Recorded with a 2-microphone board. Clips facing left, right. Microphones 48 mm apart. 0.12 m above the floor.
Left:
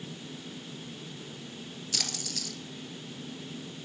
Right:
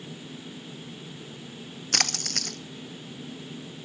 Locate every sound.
1.9 s a splash: 55° right (ahead or behind), 0.5 m